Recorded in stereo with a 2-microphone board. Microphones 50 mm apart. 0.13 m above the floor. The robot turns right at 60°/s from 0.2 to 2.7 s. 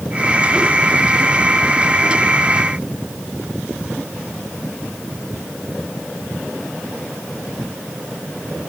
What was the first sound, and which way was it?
Only background noise.